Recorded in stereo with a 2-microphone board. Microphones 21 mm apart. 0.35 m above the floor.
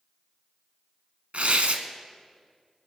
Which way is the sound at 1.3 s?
70° right (ahead or behind).